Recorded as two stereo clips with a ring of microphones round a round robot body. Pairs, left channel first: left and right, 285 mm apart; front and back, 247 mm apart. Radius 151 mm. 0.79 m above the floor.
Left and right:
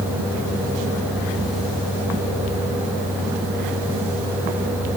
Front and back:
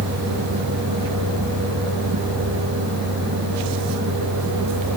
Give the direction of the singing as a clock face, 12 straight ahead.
No singing in this recording.